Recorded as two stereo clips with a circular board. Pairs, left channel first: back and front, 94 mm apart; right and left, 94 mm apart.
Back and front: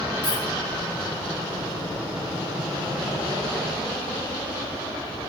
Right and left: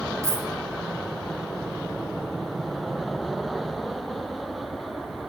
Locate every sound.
0.2 s a dropped coin: 35° left, 2.0 m